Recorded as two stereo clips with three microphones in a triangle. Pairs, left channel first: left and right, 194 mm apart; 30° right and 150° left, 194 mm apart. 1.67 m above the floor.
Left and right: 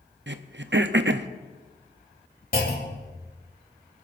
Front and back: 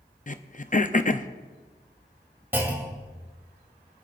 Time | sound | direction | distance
0.3 | throat clearing | 80° right | 0.6 m
2.5 | a clunk | 75° left | 2.5 m